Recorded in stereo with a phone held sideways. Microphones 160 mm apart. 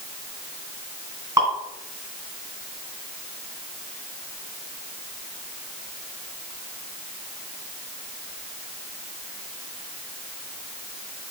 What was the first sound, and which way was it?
Dripping, 20° right (ahead or behind).